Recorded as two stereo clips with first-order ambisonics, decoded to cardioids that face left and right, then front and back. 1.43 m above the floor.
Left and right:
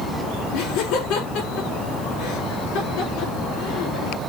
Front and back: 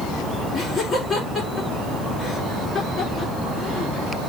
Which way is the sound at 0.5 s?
90° left.